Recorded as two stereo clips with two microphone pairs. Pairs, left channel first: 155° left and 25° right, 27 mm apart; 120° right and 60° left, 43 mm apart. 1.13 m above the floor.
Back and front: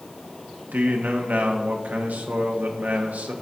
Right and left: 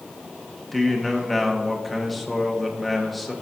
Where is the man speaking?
30° right, 1.6 m.